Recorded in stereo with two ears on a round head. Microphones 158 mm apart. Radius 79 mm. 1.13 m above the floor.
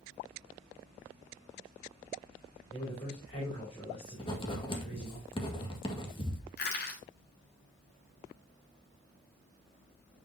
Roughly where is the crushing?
Left.